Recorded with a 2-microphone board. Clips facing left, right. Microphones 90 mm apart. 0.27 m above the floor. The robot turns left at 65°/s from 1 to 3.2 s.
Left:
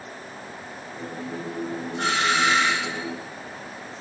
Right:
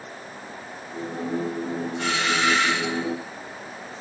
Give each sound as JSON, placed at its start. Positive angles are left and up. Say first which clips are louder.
{"t": 2.0, "sound": "a doorbell", "louder": "left 3 dB", "azimuth_deg": 70, "distance_m": 4.0}